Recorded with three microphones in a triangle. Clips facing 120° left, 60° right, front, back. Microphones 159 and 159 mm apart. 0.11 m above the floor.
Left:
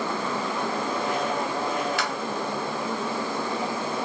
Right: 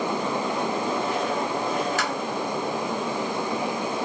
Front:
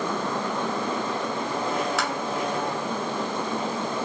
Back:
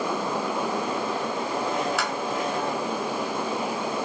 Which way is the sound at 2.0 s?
90° right.